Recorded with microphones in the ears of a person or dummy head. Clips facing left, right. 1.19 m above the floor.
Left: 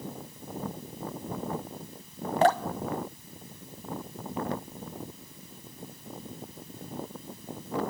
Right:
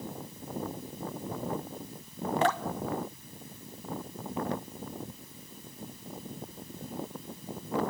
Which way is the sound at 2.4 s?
30° left (ahead or behind).